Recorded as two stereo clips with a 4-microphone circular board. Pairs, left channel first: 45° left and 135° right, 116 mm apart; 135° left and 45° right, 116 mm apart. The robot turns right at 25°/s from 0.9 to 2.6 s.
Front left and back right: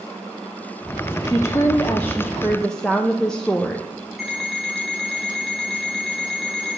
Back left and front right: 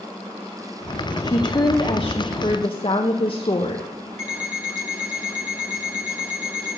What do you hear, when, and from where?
1.2 s a woman speaking: 95° left, 0.7 m; by 3.9 s 125° left, 0.7 m
4.2 s an alarm clock: 45° right, 3 m